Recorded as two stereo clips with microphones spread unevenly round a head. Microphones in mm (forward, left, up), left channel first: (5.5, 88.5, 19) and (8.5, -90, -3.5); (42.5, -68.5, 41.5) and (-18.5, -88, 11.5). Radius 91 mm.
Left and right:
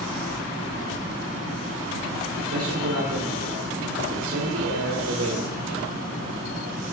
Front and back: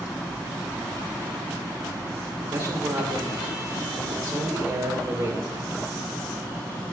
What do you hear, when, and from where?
2.4 s a man speaking: 100° right, 1.3 m